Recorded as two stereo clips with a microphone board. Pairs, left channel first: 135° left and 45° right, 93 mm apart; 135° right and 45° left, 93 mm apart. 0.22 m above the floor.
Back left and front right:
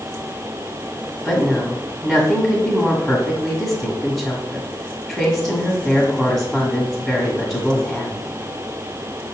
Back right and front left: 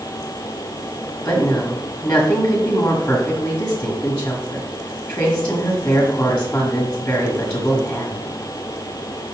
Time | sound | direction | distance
1.2 | a woman speaking | 160° right | 1.4 m